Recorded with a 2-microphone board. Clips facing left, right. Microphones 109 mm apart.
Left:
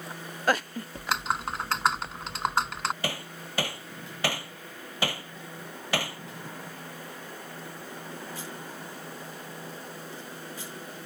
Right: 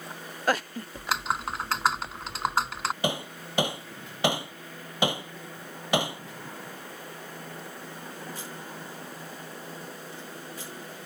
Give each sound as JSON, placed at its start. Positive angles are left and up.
{"t": 0.9, "sound": "typing on a keyboard", "side_deg": 0}
{"t": 3.0, "sound": "hammering", "side_deg": -20}